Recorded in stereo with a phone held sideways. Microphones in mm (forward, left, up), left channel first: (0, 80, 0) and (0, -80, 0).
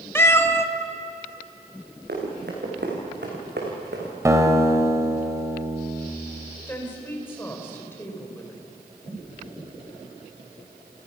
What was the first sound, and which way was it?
A cat meowing, 15° left (ahead or behind).